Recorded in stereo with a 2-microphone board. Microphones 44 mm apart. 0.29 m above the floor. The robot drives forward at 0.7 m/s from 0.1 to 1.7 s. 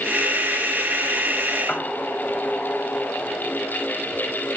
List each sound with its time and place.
1.7 s a piano: 30° left (ahead or behind), 1.4 m